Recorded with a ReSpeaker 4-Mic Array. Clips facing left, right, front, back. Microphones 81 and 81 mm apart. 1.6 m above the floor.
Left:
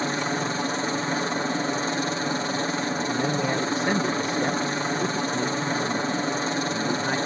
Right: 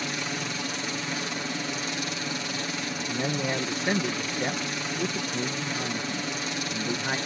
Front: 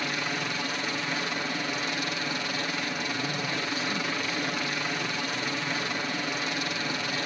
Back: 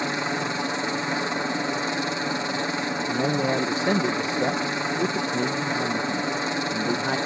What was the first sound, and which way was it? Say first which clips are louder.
A helicopter: left 6 dB, back 5 dB; 125° left.